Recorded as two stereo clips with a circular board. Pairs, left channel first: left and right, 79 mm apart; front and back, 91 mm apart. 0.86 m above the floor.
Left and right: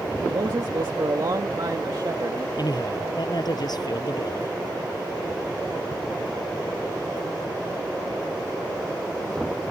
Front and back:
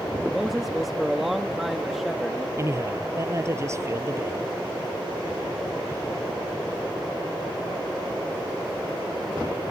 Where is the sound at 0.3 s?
90° right.